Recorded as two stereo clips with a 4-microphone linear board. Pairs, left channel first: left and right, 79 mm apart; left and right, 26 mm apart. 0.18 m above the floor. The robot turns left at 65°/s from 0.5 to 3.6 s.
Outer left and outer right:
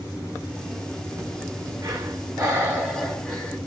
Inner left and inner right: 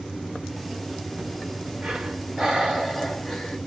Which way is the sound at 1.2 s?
45° right.